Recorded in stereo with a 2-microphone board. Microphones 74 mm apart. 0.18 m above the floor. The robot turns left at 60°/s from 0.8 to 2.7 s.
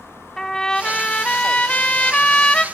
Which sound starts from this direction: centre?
A trumpet, at 0.4 s.